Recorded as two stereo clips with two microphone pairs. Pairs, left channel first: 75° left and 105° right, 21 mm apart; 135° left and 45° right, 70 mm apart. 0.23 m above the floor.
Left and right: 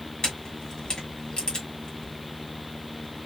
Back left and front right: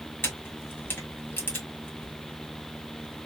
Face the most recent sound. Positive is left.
turn(degrees=100)